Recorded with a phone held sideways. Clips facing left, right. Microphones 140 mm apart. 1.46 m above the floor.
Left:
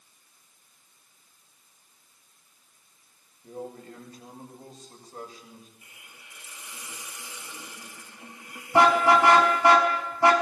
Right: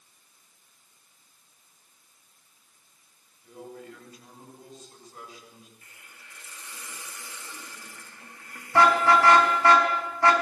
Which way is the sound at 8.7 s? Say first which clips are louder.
Left 1 dB; 20° left (ahead or behind).